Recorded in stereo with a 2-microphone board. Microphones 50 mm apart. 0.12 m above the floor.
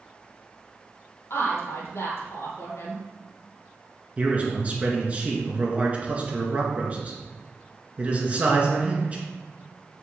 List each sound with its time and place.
1.3 s a woman speaking: 65° left (ahead or behind), 2.5 m
4.2 s a man speaking: 30° right (ahead or behind), 1.7 m